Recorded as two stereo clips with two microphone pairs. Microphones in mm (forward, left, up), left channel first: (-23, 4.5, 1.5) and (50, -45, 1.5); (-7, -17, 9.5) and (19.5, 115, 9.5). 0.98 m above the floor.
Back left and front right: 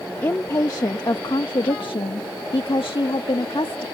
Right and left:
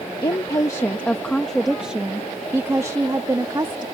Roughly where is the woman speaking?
Behind right.